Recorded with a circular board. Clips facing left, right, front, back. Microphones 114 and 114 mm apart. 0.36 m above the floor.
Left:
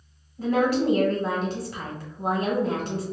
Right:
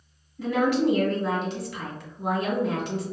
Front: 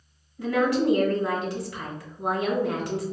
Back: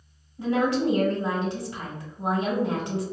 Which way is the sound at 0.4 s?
120° left.